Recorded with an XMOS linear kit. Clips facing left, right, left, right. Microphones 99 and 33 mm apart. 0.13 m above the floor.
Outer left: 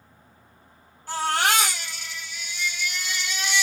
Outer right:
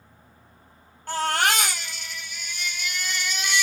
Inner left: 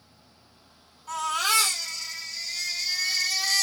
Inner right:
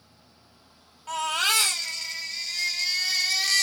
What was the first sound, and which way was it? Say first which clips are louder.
A baby crying: even, inner right 1 dB; 50° right (ahead or behind).